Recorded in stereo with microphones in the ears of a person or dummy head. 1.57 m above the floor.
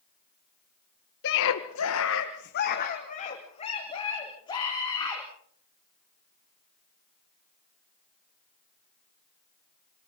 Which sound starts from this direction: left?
A scream, at 1.2 s.